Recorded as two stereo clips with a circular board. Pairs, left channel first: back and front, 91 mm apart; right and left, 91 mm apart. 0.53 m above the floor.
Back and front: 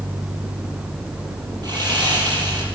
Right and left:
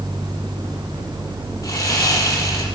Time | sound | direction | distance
1.6 | sawing | 40° right | 4.5 m